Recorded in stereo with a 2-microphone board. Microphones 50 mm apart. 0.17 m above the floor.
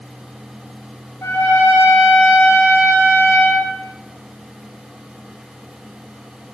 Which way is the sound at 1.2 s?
70° left (ahead or behind).